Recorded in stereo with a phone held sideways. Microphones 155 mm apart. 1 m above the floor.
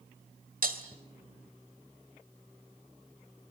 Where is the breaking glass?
65° right (ahead or behind), 1.8 m.